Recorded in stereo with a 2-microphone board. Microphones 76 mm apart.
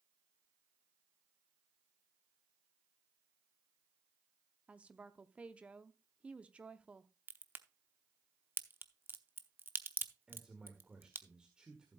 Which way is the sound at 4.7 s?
15° right (ahead or behind).